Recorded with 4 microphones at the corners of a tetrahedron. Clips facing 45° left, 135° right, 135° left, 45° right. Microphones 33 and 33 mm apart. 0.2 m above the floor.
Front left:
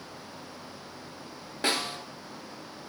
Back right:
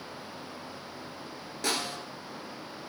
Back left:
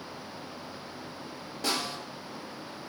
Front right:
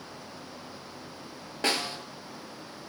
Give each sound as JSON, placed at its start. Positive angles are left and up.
{"t": 1.6, "sound": "a snare drum", "azimuth_deg": -10, "distance_m": 1.2}